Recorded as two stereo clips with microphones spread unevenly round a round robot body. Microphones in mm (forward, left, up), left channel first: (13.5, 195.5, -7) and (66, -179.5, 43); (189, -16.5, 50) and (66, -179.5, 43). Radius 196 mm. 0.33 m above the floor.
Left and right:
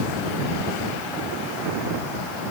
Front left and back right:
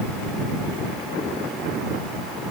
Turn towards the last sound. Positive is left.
No sound to turn to.